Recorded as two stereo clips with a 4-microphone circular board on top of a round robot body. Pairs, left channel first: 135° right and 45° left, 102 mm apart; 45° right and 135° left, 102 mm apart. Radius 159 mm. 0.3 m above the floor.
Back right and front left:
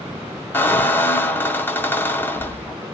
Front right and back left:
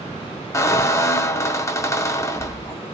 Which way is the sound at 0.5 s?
80° right.